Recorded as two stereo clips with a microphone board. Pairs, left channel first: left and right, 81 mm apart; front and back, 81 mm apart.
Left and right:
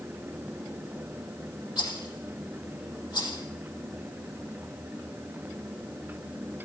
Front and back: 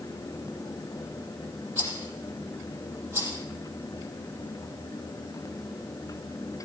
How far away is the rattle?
About 5 m.